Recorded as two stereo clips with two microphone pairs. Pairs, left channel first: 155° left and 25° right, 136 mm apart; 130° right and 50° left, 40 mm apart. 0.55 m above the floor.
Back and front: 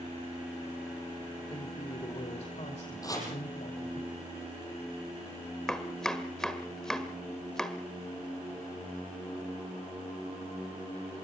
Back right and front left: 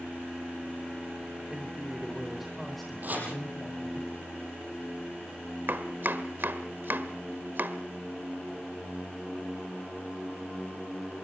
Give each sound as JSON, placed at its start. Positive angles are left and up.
{"t": 1.5, "sound": "a man speaking", "azimuth_deg": 115, "distance_m": 2.5}
{"t": 3.0, "sound": "chopping", "azimuth_deg": 90, "distance_m": 6.5}
{"t": 5.7, "sound": "chopping", "azimuth_deg": 70, "distance_m": 1.5}